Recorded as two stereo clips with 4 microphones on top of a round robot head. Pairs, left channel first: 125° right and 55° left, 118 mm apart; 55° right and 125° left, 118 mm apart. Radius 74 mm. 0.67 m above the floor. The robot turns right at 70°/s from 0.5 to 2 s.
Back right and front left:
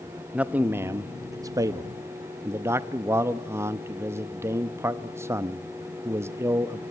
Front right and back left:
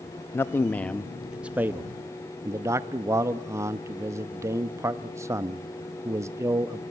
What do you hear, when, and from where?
0.3 s a man speaking: 10° right, 0.5 m; by 6.8 s 95° left, 0.5 m